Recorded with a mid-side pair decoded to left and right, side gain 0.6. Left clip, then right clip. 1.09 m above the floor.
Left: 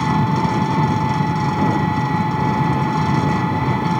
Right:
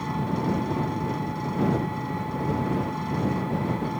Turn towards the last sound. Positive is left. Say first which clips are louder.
# left 10 dB
turn(degrees=50)